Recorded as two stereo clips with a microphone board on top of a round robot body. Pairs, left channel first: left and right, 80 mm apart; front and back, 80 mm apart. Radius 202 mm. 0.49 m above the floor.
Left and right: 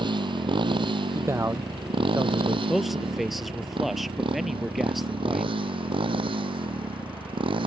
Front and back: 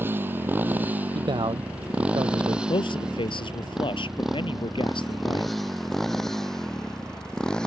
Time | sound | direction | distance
0.0 | a motorcycle | 115° right | ?
1.1 | a man speaking | 150° right | ?
2.7 | a man speaking | straight ahead | ?